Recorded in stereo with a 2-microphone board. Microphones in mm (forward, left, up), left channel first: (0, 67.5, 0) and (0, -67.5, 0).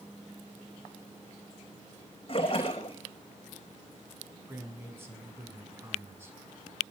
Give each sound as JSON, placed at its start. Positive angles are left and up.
{"t": 2.3, "sound": "a splash", "side_deg": 40, "distance_m": 5.0}
{"t": 4.5, "sound": "a man speaking", "side_deg": -20, "distance_m": 5.5}